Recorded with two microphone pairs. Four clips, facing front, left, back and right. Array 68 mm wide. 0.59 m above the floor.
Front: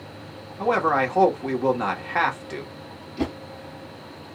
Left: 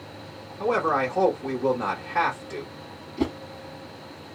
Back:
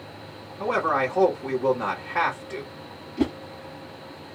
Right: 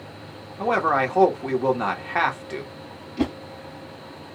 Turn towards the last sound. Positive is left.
turn(degrees=-85)